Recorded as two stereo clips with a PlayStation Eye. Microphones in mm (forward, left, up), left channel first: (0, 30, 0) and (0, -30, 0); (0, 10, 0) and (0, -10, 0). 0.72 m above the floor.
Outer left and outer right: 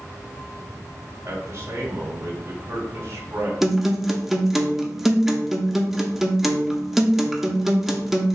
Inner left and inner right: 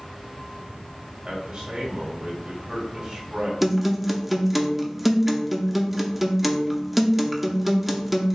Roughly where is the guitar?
Centre.